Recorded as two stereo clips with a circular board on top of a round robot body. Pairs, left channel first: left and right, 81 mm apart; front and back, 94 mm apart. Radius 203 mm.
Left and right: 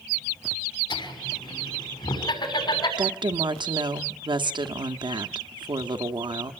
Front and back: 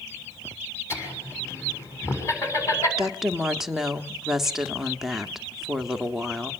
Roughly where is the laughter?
Ahead left.